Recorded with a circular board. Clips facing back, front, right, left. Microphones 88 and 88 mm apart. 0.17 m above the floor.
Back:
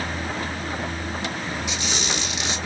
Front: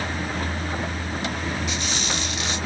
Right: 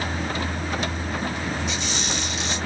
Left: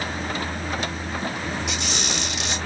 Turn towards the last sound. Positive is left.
turn(degrees=105)